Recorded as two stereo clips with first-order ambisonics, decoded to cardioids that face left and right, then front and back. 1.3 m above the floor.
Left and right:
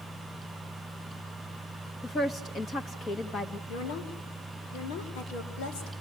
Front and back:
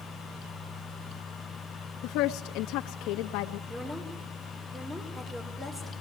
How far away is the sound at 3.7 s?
About 6 m.